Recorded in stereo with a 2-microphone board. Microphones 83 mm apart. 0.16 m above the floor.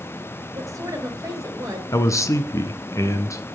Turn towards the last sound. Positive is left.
turn(degrees=40)  # may be behind; listen again after turning